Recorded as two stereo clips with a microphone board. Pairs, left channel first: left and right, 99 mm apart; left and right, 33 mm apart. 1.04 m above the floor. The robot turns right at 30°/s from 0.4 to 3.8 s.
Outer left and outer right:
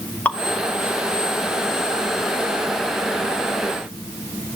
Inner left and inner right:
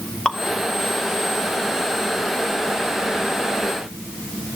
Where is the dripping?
15° left (ahead or behind), 2 m.